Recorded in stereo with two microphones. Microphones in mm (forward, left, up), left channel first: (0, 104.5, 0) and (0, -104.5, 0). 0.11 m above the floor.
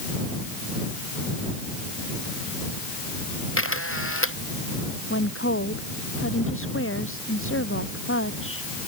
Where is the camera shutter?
85° left.